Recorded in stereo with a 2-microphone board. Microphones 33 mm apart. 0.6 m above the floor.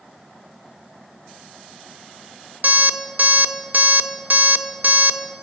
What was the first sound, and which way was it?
An alarm clock, 55° right (ahead or behind).